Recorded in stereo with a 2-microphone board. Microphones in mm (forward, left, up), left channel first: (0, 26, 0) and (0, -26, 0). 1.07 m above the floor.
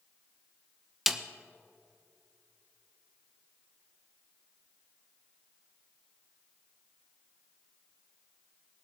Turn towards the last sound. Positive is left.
turn(degrees=-5)  # may be behind; listen again after turning